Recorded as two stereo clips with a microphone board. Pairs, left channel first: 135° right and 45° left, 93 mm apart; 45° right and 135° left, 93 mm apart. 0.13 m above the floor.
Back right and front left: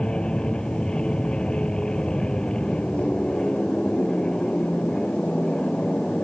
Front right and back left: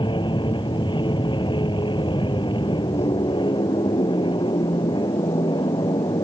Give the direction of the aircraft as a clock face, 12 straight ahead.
2 o'clock.